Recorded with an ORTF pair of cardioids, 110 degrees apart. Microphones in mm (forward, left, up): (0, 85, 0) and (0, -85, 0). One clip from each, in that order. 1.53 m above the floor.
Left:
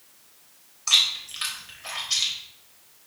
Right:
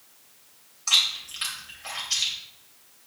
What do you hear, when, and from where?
0.9 s chewing: 10° left, 3 m